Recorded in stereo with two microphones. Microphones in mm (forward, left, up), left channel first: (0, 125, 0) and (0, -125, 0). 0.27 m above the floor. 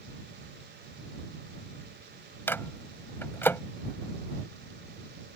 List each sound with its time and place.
2.5 s a microwave: 10° left (ahead or behind)